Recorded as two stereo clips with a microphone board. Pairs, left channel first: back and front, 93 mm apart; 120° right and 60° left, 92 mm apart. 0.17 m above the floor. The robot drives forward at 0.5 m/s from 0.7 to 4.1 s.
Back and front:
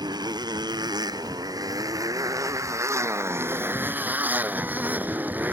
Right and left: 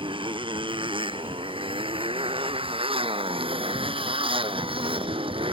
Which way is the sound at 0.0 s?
40° left.